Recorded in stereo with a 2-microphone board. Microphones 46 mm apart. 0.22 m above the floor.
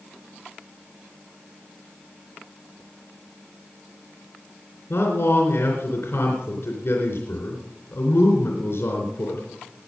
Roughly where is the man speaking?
Left.